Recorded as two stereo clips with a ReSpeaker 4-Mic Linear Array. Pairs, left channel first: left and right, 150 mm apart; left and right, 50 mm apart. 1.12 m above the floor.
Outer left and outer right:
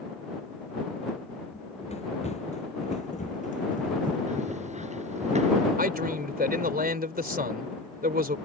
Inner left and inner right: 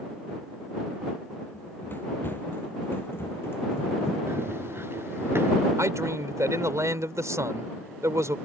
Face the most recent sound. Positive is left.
turn(degrees=-85)